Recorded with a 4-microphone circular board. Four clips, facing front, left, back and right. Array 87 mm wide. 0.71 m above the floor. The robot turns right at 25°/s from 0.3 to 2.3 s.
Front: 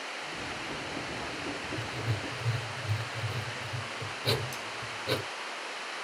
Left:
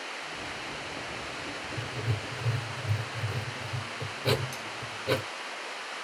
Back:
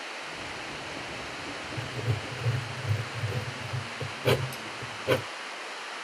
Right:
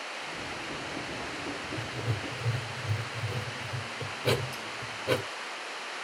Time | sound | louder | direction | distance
1.8 | writing | even, back 1 dB | 175° left | 1.0 m
4.5 | cutlery clinking | even, even | 85° right | 1.3 m